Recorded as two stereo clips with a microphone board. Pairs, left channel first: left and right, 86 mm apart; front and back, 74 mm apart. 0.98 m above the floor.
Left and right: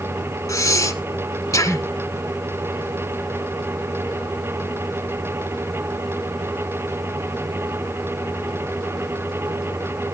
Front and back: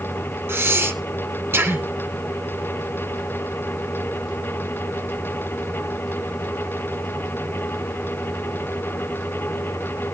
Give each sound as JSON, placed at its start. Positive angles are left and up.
{"t": 0.5, "sound": "breathing", "azimuth_deg": 130, "distance_m": 1.7}